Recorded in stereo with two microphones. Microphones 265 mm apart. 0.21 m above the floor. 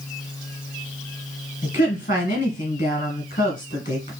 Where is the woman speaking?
35° left (ahead or behind), 1.8 m.